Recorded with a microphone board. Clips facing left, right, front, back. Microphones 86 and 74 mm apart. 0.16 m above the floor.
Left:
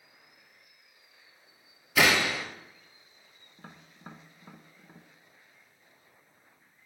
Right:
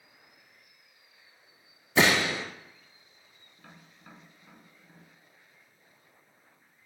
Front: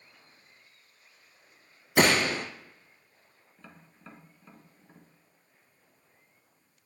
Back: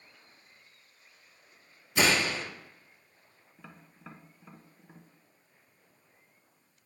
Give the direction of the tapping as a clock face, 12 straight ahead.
8 o'clock.